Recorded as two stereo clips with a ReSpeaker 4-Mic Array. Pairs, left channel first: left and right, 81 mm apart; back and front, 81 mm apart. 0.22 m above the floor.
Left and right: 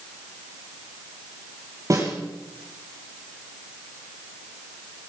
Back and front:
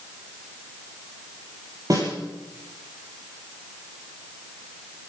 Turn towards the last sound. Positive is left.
turn(degrees=-45)